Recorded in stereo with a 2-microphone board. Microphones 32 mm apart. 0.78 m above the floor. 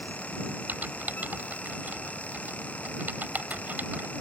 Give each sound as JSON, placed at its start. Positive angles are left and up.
{"t": 0.7, "sound": "typing on a keyboard", "side_deg": -65}